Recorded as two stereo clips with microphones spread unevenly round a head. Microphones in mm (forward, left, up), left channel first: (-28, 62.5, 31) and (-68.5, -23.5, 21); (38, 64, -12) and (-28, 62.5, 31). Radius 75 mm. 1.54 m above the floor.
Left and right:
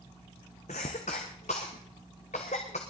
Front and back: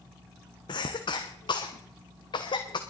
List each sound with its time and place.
0.7 s a cough: 20° left, 0.9 m